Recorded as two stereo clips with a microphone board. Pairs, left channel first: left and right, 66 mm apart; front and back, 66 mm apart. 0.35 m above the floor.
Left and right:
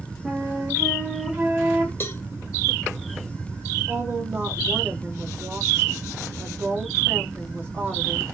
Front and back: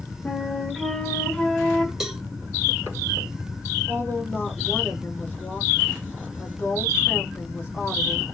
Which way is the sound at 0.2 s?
60° right.